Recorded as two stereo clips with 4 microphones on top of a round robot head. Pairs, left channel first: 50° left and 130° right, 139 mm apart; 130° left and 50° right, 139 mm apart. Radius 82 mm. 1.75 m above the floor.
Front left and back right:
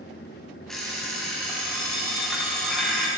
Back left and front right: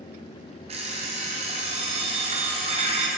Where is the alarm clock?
35° right, 0.9 m.